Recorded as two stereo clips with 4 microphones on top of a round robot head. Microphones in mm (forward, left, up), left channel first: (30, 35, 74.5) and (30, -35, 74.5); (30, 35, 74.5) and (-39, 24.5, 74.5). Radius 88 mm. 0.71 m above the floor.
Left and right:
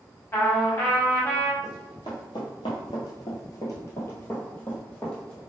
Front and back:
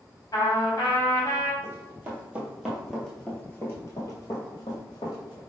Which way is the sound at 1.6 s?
135° left.